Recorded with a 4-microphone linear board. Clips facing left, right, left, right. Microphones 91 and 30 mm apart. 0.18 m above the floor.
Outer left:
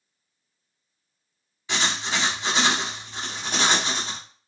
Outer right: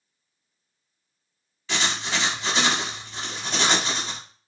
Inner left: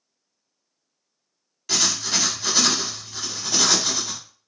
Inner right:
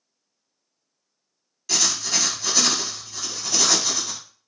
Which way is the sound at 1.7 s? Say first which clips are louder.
Even, inner left 1 dB; 15° left (ahead or behind).